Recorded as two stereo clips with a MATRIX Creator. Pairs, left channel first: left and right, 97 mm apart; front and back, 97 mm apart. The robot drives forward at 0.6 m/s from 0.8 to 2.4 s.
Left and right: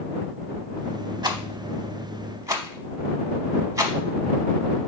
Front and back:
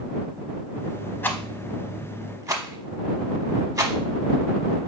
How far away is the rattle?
About 0.6 m.